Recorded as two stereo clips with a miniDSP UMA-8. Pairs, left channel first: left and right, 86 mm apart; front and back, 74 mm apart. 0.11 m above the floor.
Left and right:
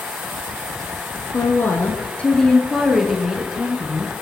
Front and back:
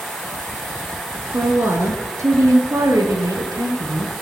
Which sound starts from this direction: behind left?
A woman speaking, at 1.3 s.